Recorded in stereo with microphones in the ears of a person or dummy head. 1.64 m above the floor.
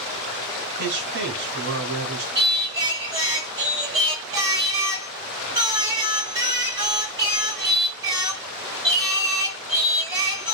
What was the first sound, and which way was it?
A man speaking, 75° right (ahead or behind).